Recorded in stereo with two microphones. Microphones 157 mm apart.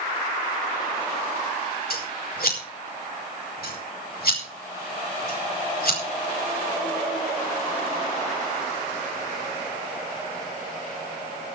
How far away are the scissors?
About 4.5 m.